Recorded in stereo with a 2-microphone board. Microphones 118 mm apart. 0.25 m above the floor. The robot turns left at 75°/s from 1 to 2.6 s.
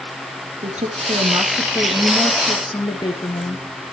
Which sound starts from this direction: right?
A woman speaking, at 0.6 s.